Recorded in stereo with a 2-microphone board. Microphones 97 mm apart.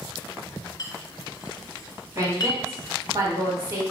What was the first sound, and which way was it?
A clink, 40° left (ahead or behind).